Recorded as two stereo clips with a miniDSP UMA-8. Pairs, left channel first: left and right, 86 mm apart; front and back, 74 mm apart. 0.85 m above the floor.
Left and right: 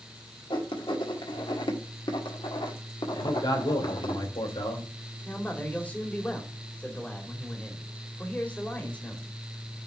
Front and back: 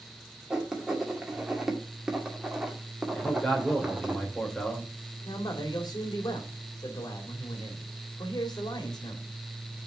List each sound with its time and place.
0.5 s writing: 100° left, 1.8 m
3.1 s a man speaking: 80° left, 3 m
5.2 s a man speaking: 20° left, 2 m